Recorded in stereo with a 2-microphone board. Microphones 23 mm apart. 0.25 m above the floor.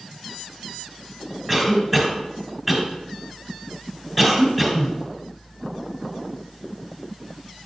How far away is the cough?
About 1.8 m.